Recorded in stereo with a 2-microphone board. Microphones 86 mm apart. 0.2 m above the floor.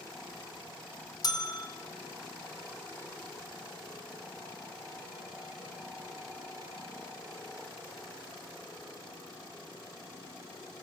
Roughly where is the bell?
Left.